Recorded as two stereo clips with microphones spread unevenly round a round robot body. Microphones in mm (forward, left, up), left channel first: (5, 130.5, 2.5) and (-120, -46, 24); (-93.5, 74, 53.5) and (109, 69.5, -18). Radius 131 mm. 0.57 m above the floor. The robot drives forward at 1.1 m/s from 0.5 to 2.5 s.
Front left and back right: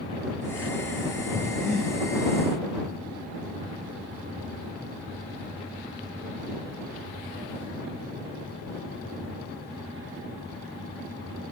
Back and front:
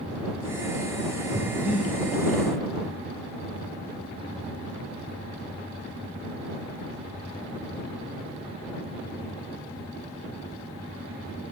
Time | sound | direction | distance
1.3 | breathing | 60° left | 2 m